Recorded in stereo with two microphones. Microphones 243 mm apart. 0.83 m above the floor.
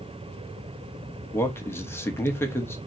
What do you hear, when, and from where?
1.3 s a man speaking: 10° left (ahead or behind), 0.7 m